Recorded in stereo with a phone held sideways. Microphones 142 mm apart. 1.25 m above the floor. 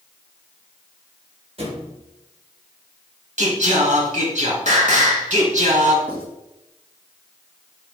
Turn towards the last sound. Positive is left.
turn(degrees=15)  # may be behind; listen again after turning